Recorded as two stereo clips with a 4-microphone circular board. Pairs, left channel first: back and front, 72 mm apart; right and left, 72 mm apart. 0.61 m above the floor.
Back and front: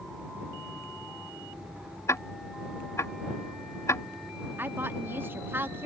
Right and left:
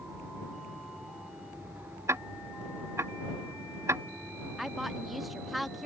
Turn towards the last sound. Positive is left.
turn(degrees=0)